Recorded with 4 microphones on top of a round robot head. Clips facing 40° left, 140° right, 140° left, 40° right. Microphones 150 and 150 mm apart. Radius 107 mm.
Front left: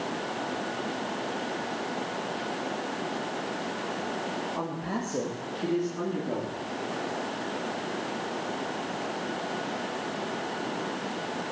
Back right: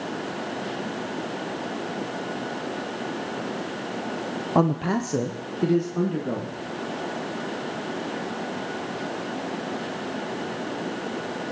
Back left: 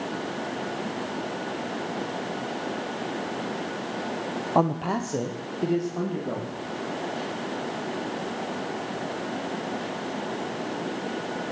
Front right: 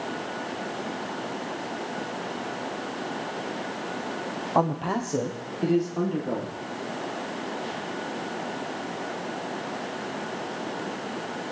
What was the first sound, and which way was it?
A man speaking, 135° right.